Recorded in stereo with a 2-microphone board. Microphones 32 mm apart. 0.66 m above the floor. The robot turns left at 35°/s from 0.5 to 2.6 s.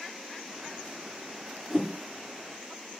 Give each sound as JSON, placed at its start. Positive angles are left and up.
{"t": 1.7, "sound": "a whoosh", "side_deg": -10, "distance_m": 0.9}